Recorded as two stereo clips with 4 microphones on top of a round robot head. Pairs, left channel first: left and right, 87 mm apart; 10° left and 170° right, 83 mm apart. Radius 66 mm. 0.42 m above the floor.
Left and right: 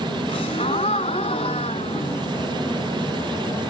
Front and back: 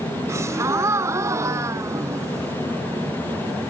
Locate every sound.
0.3 s a gasp: 135° left, 0.7 m